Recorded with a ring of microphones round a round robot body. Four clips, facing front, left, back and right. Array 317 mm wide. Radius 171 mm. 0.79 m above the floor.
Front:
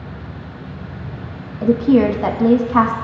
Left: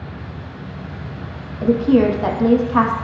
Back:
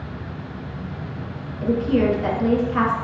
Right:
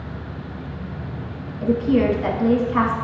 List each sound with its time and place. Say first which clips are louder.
1.6 s a woman speaking: left 4 dB, front 6 dB; 30° left, 1.1 m